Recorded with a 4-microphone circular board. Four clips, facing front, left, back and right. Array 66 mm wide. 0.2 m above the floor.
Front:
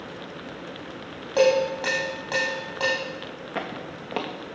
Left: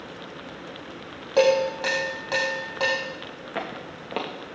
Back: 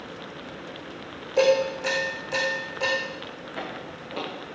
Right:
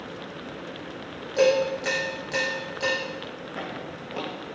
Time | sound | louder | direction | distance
1.4 | dishes clattering | left 1 dB, front 1 dB | 55° left | 5.5 m
3.5 | footsteps | left 3 dB, front 3 dB | 50° left | 2.5 m